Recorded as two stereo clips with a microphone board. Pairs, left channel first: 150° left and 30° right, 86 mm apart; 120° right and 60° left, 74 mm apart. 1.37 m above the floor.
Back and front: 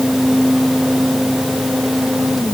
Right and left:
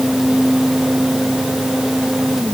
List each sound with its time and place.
Only background noise.